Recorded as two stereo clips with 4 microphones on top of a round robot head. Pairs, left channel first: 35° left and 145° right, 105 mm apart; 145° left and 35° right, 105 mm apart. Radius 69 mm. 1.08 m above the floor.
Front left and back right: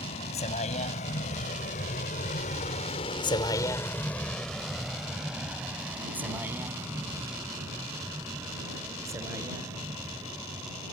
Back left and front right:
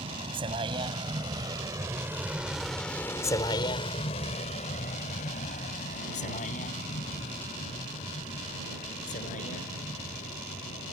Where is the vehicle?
5° left; by 10.9 s 155° left.